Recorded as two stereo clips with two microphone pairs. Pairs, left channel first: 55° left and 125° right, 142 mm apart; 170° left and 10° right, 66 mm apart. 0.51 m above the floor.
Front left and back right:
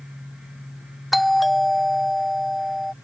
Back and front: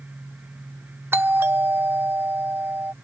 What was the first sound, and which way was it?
A doorbell, 35° right.